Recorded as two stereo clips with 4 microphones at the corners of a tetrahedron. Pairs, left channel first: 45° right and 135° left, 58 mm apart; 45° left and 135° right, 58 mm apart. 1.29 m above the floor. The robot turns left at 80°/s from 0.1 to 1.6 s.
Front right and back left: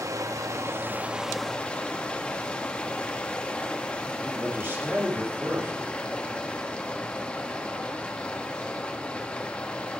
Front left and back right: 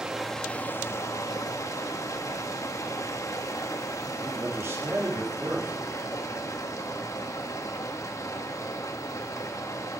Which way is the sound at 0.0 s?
145° left.